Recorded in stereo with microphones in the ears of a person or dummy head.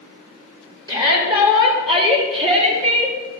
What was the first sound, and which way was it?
A shout, 30° right (ahead or behind).